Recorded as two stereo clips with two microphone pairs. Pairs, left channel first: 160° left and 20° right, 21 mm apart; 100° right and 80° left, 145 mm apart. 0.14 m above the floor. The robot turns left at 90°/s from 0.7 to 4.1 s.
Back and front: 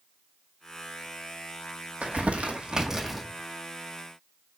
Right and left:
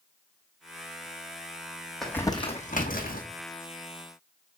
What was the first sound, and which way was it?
Crumpling, 10° right.